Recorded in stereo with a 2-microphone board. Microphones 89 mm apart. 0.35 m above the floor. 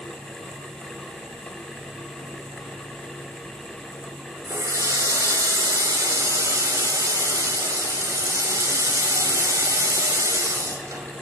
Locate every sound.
4.5 s a running tap: 40° right (ahead or behind), 1.1 m